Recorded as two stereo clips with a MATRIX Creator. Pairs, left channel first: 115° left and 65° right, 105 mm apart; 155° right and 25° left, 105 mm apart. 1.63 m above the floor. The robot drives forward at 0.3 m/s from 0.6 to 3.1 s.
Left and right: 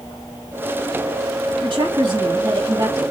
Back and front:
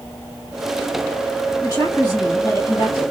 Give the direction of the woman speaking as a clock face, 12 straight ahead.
3 o'clock.